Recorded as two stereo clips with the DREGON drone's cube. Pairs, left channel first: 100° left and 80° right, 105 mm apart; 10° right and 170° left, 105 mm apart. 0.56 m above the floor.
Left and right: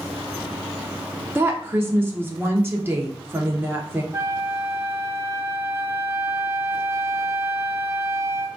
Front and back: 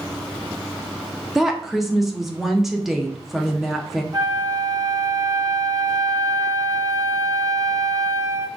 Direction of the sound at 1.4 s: 105° right.